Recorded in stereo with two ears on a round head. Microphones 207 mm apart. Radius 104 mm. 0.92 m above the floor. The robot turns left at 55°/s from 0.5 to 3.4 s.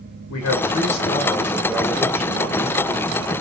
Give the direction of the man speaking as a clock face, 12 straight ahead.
10 o'clock.